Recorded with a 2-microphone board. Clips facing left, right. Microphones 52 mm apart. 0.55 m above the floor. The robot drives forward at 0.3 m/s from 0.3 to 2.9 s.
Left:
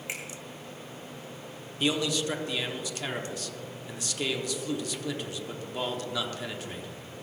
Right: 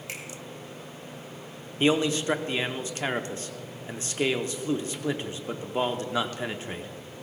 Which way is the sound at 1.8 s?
35° right (ahead or behind).